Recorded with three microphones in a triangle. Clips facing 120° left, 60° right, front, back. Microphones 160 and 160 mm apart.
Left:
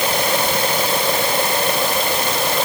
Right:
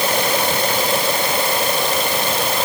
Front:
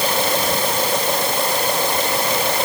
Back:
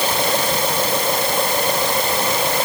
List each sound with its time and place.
Only background noise.